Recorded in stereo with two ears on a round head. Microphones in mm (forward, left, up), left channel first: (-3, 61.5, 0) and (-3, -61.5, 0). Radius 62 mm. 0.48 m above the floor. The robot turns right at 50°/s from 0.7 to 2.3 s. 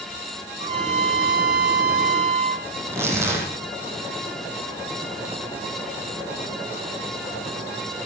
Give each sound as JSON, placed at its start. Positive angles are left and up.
{"t": 0.6, "sound": "a trumpet", "azimuth_deg": -135, "distance_m": 1.3}
{"t": 2.8, "sound": "tearing paper", "side_deg": -20, "distance_m": 5.5}